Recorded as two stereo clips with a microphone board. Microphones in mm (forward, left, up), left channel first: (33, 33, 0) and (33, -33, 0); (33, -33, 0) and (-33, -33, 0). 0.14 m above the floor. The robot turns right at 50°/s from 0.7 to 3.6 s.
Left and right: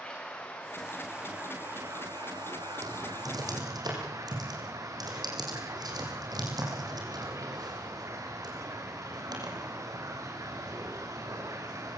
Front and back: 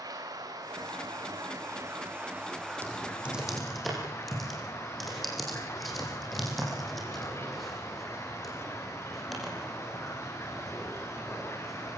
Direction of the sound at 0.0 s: 165° left.